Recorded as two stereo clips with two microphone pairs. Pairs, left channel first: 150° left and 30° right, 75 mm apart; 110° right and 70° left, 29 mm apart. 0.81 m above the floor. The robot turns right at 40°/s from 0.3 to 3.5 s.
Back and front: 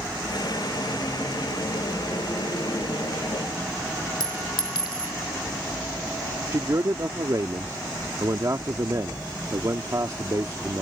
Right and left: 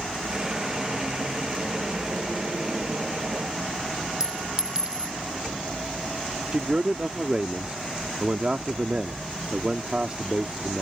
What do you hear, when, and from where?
4.2 s a clink: 135° left
6.5 s a man speaking: 10° left